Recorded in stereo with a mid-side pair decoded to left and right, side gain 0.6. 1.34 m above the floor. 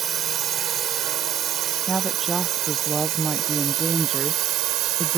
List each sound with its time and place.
0.0 s a drone: 45° right; by 5.2 s 65° right
1.9 s a woman speaking: 20° right